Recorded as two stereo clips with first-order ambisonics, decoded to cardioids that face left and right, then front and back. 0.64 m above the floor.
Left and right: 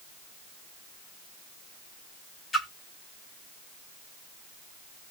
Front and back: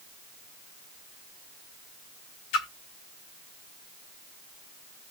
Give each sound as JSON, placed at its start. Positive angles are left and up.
{"t": 2.5, "sound": "a splash", "azimuth_deg": 15, "distance_m": 1.2}